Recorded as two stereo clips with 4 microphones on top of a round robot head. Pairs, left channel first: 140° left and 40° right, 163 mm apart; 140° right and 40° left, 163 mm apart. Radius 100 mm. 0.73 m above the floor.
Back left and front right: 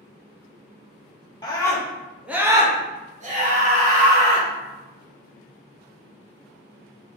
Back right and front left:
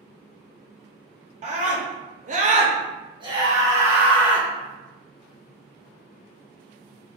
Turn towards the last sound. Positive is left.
turn(degrees=-40)